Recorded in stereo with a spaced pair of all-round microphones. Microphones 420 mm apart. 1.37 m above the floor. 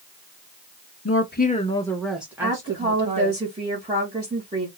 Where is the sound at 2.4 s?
10° right (ahead or behind), 1.9 m.